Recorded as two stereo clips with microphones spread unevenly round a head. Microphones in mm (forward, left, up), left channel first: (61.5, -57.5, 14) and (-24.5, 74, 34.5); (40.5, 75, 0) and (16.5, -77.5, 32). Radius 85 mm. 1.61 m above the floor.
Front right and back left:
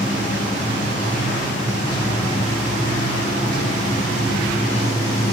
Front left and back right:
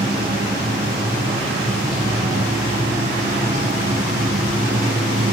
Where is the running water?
80° right, 9.5 m.